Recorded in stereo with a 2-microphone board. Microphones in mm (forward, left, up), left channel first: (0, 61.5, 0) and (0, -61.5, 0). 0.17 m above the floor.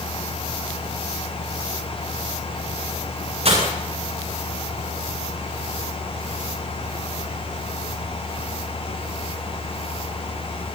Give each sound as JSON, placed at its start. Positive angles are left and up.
{"t": 3.5, "sound": "breaking glass", "side_deg": -60, "distance_m": 9.5}